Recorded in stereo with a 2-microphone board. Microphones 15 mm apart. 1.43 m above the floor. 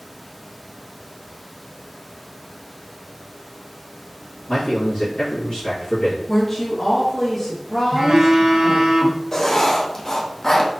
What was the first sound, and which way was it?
A man speaking, 65° left (ahead or behind).